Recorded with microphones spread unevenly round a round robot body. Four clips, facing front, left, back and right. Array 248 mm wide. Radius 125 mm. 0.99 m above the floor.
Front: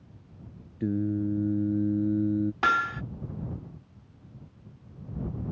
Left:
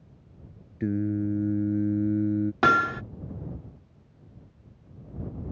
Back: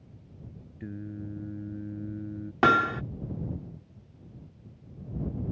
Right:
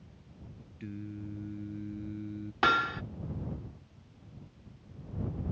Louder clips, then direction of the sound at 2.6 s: Left 4 dB, back 8 dB; 145° left.